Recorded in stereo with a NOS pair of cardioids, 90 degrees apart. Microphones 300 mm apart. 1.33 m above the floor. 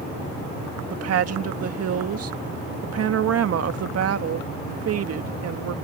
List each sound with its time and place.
0.9 s a woman speaking: 55° right